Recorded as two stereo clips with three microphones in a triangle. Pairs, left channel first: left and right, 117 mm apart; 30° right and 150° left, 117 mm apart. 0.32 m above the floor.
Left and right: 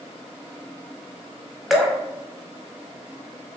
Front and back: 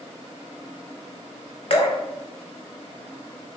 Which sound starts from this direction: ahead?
Dripping, at 1.7 s.